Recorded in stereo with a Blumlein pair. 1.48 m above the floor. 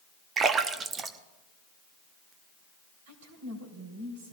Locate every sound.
0.4 s a splash: 25° right, 0.8 m
3.1 s a woman speaking: 55° right, 3.5 m